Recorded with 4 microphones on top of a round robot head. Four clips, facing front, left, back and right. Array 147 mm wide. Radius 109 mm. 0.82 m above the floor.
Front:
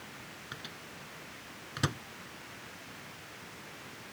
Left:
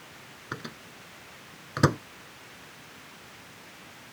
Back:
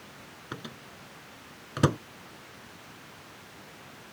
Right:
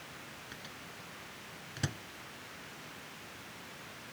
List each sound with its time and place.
0.5 s a microwave: 130° left